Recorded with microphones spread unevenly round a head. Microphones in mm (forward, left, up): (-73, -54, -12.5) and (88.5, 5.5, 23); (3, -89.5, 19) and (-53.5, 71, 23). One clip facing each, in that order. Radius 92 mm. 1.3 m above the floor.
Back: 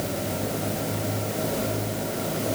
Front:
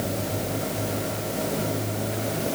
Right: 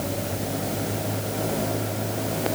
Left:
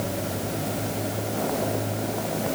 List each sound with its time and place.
Only background noise.